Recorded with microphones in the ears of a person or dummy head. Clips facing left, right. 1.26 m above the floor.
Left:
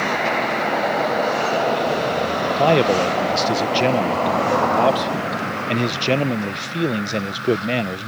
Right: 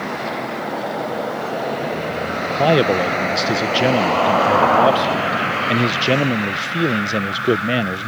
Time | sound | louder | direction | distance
2.5 | a man speaking | right 1 dB | 5° right (ahead or behind) | ?